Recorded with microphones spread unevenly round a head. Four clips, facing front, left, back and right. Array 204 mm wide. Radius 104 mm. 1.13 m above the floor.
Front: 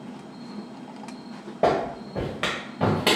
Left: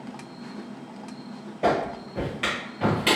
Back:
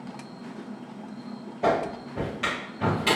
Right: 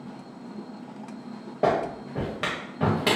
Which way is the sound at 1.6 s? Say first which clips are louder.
Even, front 2 dB; 30° right.